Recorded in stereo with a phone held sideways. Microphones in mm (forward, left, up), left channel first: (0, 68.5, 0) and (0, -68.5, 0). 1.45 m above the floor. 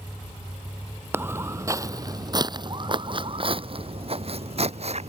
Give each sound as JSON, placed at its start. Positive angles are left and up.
{"t": 1.1, "sound": "footsteps", "side_deg": -15}